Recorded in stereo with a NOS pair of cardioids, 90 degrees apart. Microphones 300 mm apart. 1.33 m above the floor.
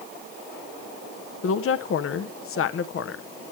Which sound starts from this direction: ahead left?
A woman speaking, at 1.4 s.